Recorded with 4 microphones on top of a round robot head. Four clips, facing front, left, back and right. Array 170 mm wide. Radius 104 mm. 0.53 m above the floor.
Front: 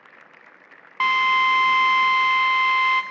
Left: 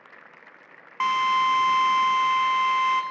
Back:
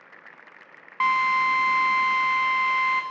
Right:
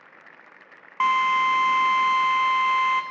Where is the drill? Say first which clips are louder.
Right 1 dB, front 2 dB; 45° right, 0.8 m.